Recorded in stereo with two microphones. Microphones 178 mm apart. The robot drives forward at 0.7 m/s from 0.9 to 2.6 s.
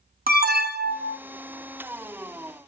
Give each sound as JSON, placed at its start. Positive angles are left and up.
{"t": 0.3, "sound": "an alarm", "side_deg": -60, "distance_m": 1.1}